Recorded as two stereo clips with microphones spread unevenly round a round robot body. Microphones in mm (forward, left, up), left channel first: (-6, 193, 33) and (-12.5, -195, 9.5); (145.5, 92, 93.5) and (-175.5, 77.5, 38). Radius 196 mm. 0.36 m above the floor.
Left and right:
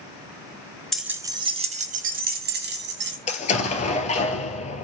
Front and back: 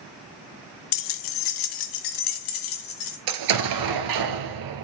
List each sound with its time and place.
0.9 s keys jangling: 5° right, 0.7 m; by 3.2 s 30° right, 1.8 m
3.3 s an explosion: 160° left, 1.5 m